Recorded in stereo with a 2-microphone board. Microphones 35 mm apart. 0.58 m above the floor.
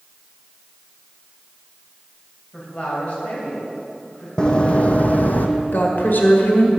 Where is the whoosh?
I don't hear a whoosh.